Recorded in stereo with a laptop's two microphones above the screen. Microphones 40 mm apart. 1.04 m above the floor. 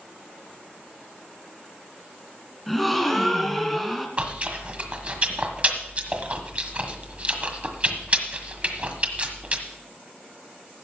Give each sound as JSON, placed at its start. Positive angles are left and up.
{"t": 2.7, "sound": "a gasp", "side_deg": 5, "distance_m": 2.0}
{"t": 4.2, "sound": "chewing", "side_deg": -35, "distance_m": 1.5}